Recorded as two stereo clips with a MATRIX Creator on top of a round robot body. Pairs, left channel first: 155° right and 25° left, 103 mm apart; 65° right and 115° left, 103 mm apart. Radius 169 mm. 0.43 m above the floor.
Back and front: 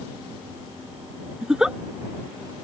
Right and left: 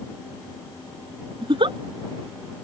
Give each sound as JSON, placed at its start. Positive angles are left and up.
{"t": 1.4, "sound": "a giggle", "azimuth_deg": 105}